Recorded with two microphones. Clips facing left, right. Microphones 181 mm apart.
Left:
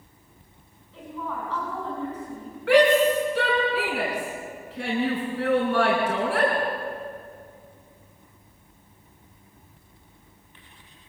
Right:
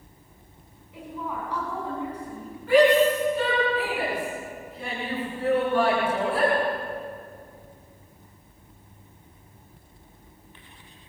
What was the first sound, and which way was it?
A woman speaking, 15° right (ahead or behind).